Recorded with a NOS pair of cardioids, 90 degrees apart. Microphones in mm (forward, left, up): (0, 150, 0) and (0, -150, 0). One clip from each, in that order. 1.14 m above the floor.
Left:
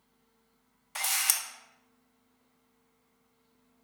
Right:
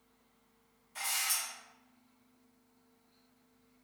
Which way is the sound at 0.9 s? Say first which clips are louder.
Left 4 dB; 70° left.